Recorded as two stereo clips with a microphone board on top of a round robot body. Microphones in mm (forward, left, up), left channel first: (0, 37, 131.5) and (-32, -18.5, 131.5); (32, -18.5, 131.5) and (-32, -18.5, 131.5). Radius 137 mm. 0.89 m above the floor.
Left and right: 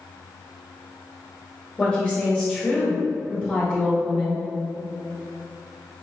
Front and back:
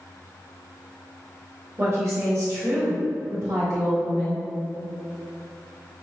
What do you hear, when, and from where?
1.8 s a woman speaking: 135° left, 1.5 m